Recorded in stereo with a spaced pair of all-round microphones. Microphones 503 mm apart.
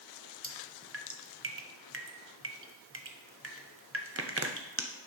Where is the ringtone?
No ringtone in this recording.